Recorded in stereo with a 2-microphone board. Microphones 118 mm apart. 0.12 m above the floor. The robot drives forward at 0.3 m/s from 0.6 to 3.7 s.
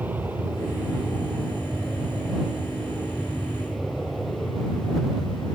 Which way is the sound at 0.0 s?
15° right (ahead or behind).